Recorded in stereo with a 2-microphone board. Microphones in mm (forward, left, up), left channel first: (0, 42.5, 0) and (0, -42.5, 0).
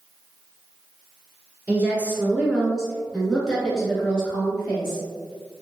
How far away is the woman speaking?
About 1.4 m.